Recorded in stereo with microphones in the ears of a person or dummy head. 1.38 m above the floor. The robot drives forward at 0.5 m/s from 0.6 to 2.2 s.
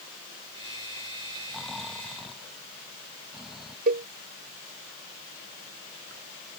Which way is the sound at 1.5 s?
Centre (ahead or behind).